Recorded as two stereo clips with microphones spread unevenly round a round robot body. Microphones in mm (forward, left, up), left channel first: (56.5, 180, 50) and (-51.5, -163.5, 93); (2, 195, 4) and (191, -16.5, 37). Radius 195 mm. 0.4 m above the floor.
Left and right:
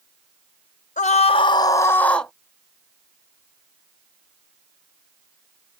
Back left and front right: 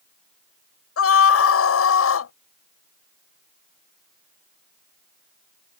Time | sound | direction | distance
1.0 | a scream | 135° left | ?